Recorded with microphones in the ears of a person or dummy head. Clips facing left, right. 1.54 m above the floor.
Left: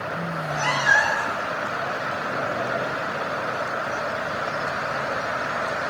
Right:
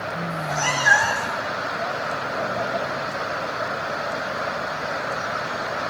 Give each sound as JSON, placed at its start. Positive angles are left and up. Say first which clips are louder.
{"t": 0.3, "sound": "a cat meowing", "louder": "right 1 dB", "side_deg": -60, "distance_m": 5.5}